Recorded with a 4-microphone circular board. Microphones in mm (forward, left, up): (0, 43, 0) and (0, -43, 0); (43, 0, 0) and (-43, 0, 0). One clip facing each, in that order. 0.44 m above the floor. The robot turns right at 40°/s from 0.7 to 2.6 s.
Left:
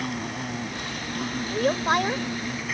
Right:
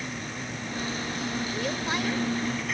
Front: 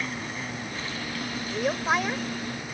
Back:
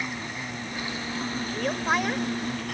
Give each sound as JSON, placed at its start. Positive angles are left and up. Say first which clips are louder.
{"t": 0.0, "sound": "an insect", "louder": "left 5 dB, even", "azimuth_deg": 100}
{"t": 1.5, "sound": "a woman speaking", "louder": "left 12 dB, front 1 dB", "azimuth_deg": 70}